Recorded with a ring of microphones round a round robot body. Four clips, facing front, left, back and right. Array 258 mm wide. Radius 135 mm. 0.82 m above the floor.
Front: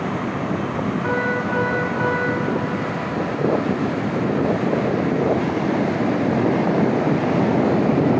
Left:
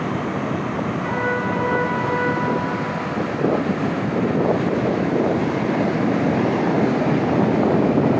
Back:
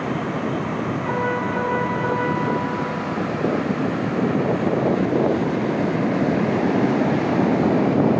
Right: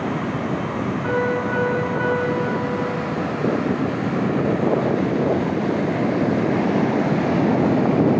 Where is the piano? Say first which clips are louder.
Right 3 dB, even; 25° right, 7 m.